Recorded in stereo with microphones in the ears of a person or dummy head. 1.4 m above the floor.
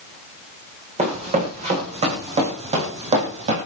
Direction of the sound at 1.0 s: 25° right (ahead or behind).